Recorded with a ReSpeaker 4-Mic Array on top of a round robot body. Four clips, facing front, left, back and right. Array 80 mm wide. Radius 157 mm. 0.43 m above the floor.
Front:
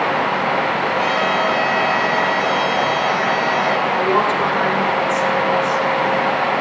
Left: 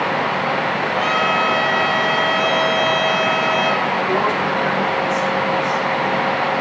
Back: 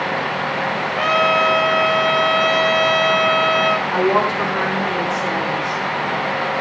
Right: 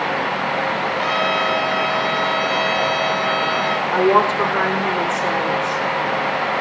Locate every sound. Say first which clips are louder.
1.0 s a trumpet: left 3 dB, back 5 dB; 170° left, 2 m
3.9 s a woman speaking: right 3 dB, even; 120° right, 8.5 m